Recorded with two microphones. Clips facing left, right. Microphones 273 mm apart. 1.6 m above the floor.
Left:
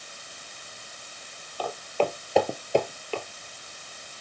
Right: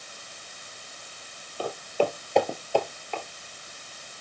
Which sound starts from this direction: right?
Footsteps, at 1.6 s.